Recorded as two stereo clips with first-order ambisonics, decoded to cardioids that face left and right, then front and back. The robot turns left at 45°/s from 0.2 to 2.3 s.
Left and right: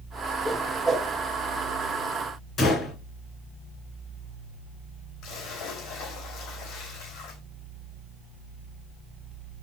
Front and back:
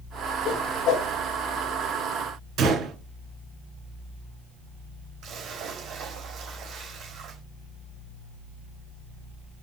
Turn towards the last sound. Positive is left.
turn(degrees=125)